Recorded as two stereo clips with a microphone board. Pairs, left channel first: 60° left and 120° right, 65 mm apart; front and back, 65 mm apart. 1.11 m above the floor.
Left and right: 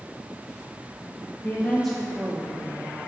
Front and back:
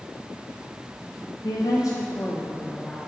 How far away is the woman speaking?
About 0.6 m.